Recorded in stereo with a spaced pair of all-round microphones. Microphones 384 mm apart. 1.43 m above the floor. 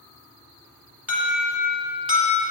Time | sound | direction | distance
1.1 | an alarm | 35° right (ahead or behind) | 1.7 m